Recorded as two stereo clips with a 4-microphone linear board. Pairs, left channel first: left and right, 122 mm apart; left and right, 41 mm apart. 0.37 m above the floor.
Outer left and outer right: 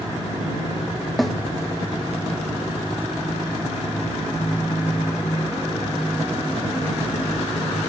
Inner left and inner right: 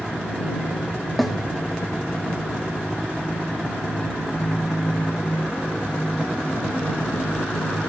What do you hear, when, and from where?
1.2 s a snare drum: centre (ahead or behind)